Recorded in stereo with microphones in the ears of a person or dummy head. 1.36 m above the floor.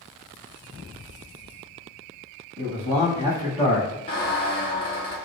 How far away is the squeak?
About 1.0 m.